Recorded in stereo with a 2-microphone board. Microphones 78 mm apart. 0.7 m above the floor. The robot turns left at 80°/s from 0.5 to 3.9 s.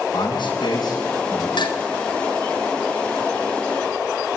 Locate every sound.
0.1 s a man speaking: 85° left, 7.5 m; by 1.5 s 5° left, 7.5 m
1.6 s dishes clattering: 80° left, 3.5 m; by 1.8 s 65° left (ahead or behind), 3.5 m